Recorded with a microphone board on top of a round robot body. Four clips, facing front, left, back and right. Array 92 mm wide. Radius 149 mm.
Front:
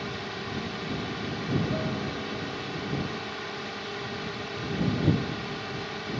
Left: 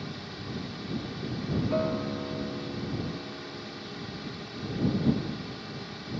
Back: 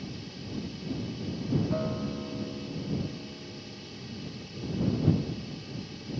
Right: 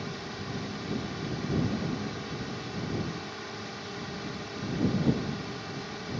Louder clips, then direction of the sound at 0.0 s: Right 2 dB, front 7 dB; 10° right.